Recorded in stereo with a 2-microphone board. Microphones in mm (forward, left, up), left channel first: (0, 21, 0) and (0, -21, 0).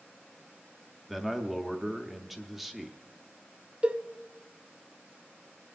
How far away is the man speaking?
About 0.8 m.